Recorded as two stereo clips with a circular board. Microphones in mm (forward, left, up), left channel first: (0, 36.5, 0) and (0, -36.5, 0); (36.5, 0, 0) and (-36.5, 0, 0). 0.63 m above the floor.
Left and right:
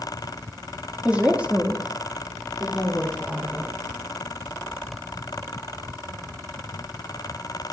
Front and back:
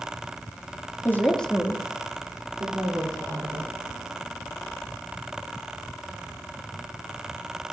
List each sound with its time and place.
1.1 s a woman speaking: 30° right, 1.3 m; by 3.7 s 175° left, 3 m